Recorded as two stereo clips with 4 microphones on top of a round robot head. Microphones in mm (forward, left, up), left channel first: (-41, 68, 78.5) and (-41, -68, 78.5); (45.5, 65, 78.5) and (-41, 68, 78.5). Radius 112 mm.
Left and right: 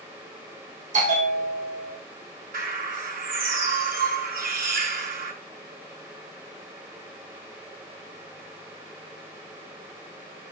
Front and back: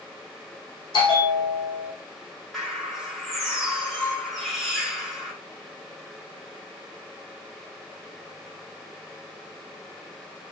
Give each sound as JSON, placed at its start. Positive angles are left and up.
{"t": 0.9, "sound": "a bell", "azimuth_deg": -45, "distance_m": 4.0}
{"t": 2.5, "sound": "a bird", "azimuth_deg": -90, "distance_m": 5.5}